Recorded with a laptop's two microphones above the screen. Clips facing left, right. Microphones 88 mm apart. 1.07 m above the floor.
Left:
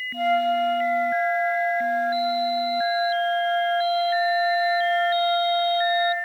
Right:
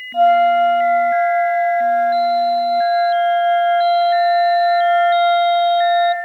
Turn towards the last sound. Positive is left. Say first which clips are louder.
# right 10 dB
turn(degrees=-55)  # may be behind; listen again after turning